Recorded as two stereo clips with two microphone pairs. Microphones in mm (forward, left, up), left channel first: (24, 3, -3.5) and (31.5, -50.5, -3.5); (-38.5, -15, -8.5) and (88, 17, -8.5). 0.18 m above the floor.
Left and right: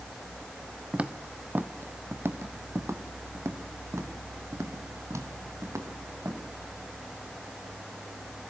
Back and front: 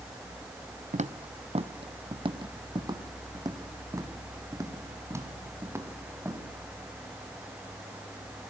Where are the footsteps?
10° right, 1.0 m; by 6.4 s 60° right, 3.5 m.